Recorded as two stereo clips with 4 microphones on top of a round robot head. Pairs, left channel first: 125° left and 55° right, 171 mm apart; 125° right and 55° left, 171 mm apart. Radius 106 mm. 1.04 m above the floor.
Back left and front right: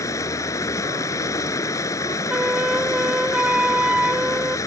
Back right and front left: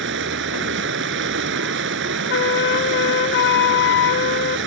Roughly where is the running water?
Ahead left.